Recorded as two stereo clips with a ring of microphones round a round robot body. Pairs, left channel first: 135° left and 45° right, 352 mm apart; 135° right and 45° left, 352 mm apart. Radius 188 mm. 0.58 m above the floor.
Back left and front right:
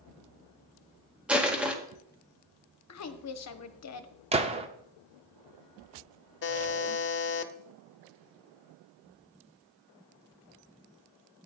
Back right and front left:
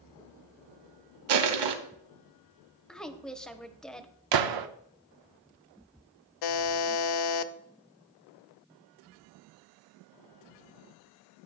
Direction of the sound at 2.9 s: 140° left.